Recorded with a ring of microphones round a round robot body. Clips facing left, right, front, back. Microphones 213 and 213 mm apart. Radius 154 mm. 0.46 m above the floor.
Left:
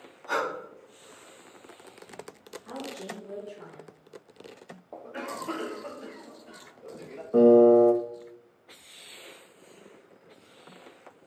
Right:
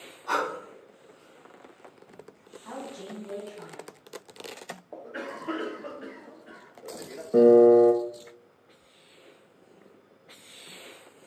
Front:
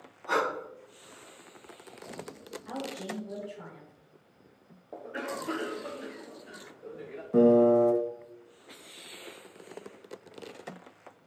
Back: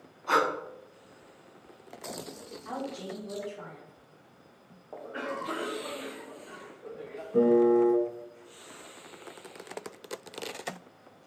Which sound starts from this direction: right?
Breathing, at 0.3 s.